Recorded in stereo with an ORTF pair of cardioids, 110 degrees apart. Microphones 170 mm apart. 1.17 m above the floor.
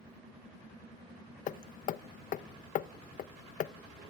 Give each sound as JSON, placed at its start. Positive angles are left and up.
{"t": 1.5, "sound": "hammering", "azimuth_deg": 50, "distance_m": 0.9}